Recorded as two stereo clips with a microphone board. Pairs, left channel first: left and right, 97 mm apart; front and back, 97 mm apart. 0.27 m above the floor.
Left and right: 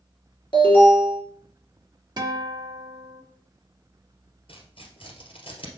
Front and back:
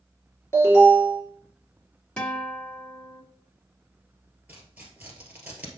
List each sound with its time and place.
0.5 s an alarm: 65° left, 3 m
2.2 s a guitar: 75° right, 1.1 m
4.5 s tearing paper: 105° left, 2 m